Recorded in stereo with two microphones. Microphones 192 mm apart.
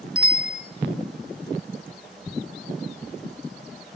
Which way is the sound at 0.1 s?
5° right (ahead or behind).